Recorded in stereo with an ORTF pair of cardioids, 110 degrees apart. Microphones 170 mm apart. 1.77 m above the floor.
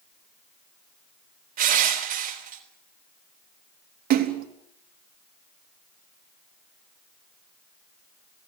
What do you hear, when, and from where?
1.6 s crushing: 55° right, 4 m
4.1 s a splash: 60° right, 3.5 m